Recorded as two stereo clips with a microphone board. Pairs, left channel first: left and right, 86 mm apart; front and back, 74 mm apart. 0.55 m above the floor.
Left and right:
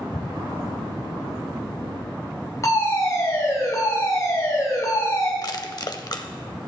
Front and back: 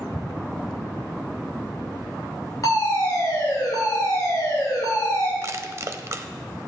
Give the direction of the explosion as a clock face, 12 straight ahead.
7 o'clock.